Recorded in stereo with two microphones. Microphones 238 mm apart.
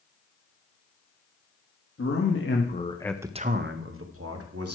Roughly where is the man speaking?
Left.